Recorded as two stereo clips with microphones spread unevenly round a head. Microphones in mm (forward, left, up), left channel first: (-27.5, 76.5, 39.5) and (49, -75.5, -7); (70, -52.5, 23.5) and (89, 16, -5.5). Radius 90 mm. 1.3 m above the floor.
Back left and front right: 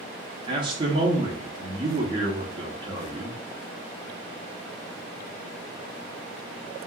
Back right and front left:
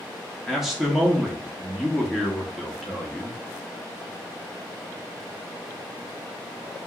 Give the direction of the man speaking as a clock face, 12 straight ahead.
12 o'clock.